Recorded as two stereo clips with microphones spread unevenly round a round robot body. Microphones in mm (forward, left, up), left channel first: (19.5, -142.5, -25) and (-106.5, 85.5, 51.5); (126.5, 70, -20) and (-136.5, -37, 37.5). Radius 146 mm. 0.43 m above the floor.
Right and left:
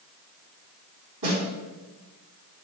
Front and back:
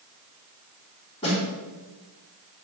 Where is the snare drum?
90° left, 3 m.